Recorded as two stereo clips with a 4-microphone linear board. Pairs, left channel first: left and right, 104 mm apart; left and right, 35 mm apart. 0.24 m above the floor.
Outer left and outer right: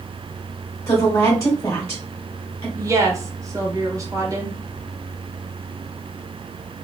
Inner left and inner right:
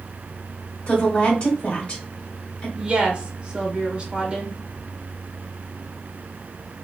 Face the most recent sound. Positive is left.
turn(degrees=-30)  # may be behind; listen again after turning